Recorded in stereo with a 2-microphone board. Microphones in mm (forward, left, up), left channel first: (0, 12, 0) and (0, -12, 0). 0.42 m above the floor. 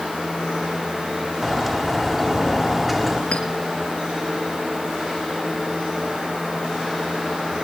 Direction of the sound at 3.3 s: 70° left (ahead or behind).